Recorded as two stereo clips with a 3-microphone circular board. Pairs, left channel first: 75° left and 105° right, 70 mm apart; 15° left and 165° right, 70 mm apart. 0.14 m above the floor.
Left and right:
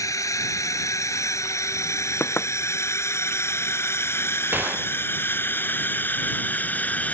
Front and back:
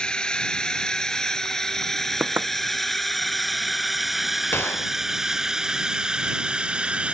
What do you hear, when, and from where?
0.0 s a drone: 90° left; by 7.2 s 130° left
2.2 s knocking: 135° left
4.5 s a gunshot: 40° right